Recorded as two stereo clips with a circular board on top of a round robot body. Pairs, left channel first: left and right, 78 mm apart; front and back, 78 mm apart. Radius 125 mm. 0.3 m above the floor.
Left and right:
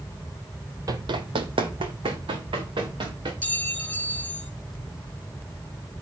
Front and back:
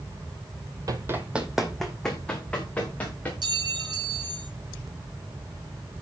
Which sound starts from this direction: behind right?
Running footsteps, at 0.9 s.